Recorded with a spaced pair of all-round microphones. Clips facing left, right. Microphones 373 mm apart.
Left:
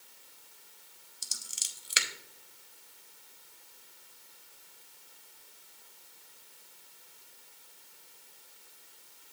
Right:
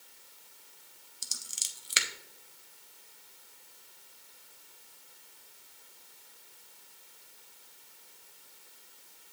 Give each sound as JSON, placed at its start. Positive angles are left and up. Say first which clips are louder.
{"t": 1.2, "sound": "scissors", "louder": "right 1 dB", "side_deg": 0, "distance_m": 0.7}